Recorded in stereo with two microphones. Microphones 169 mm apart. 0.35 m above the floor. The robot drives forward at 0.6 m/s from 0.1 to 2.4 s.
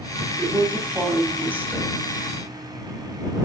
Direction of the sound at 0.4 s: 10° right (ahead or behind).